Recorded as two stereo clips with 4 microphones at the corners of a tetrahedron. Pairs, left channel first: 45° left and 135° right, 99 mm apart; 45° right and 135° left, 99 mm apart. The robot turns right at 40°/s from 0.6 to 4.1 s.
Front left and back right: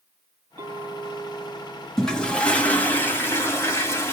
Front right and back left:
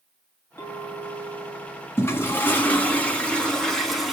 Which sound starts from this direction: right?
A clink, at 0.6 s.